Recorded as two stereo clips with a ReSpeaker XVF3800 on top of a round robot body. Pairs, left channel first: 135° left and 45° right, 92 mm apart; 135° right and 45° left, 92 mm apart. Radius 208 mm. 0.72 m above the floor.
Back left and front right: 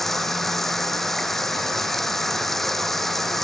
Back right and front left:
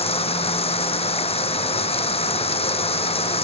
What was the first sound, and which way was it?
Running water, 135° right.